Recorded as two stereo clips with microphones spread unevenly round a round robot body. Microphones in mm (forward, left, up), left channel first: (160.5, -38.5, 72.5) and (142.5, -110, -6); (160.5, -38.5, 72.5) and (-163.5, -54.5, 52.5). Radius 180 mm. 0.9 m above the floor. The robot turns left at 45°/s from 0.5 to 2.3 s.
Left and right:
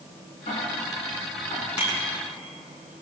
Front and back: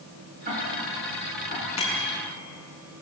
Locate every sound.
0.5 s ticking: 115° left, 7.5 m; by 1.7 s 65° left, 7.5 m
1.8 s a bicycle bell: 75° left, 6.5 m; by 2.1 s 60° left, 6.5 m